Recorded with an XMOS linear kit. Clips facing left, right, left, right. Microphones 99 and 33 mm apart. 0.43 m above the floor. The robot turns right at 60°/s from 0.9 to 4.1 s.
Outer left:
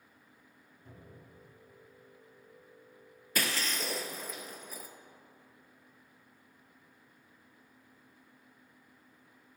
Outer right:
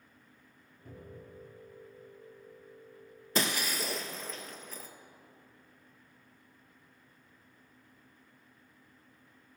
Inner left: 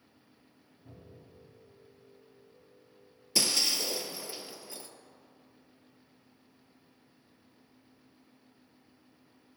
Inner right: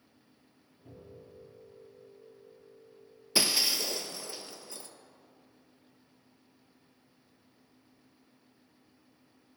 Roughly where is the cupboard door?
Right.